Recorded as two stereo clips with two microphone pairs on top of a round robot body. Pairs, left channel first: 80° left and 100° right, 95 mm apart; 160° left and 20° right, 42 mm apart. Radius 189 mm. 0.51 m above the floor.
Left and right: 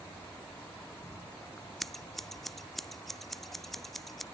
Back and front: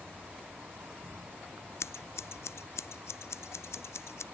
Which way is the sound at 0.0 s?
5° left.